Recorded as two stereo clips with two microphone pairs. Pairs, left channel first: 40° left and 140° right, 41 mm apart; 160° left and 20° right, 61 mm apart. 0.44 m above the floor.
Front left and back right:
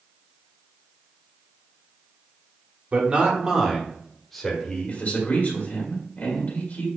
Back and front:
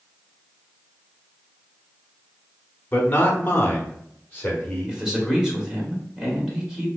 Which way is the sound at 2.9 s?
160° right.